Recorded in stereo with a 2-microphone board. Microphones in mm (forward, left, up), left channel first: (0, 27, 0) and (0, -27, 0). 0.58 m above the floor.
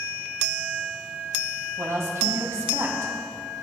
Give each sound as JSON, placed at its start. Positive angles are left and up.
{"t": 1.8, "sound": "a woman speaking", "side_deg": -60, "distance_m": 3.5}